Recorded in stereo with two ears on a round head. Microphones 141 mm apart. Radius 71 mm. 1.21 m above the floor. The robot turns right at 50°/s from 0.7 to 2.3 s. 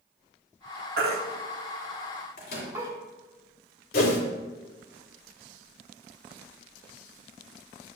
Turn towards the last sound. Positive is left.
turn(degrees=65)  # may be behind; listen again after turning